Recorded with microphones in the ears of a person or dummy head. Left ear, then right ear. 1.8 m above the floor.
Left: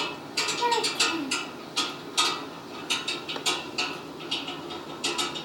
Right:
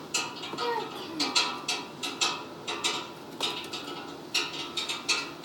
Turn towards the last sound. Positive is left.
turn(degrees=15)  # may be behind; listen again after turning